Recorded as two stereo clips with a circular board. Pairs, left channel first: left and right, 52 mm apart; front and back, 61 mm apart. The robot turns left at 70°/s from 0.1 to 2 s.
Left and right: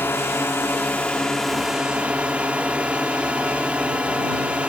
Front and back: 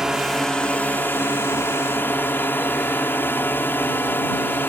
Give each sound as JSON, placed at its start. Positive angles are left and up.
{"t": 0.0, "sound": "a drone", "azimuth_deg": 105}